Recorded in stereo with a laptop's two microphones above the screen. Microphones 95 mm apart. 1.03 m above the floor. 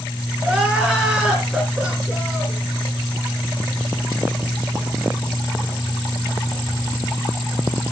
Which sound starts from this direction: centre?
Crying, at 0.4 s.